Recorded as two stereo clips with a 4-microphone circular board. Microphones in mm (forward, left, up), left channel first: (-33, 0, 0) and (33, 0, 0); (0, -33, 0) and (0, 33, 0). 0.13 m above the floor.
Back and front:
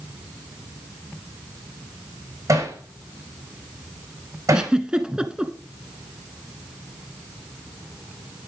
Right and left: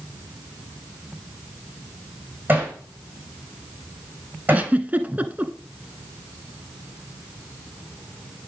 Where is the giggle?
65° left, 1.1 m.